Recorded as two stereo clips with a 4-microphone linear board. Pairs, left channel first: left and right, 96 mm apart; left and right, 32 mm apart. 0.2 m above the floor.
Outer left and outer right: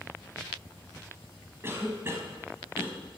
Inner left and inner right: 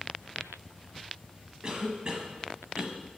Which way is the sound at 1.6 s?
30° right (ahead or behind).